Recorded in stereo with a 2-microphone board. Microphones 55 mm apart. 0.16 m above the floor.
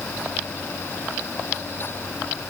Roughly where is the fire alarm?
I don't hear a fire alarm.